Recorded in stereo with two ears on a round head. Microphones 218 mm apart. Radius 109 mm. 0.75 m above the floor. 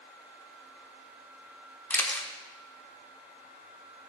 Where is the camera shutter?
5° left (ahead or behind), 1.0 m.